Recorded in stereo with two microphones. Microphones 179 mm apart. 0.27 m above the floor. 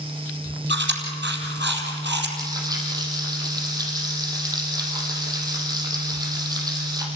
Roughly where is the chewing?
Right.